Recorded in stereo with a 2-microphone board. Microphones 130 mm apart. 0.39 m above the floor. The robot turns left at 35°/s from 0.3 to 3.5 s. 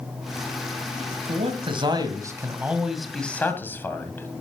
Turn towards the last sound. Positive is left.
turn(degrees=165)